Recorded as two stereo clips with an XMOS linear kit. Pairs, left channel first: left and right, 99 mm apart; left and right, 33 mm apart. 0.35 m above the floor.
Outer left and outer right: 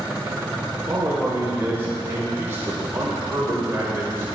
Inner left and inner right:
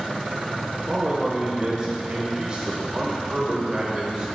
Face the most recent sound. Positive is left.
turn(degrees=-25)  # may be behind; listen again after turning